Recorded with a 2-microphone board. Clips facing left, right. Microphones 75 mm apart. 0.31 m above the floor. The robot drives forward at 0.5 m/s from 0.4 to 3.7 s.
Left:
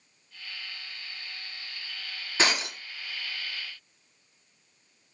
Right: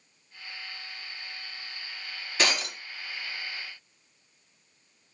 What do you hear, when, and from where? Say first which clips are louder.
2.4 s breaking glass: left 1 dB; 25° left (ahead or behind), 1.8 m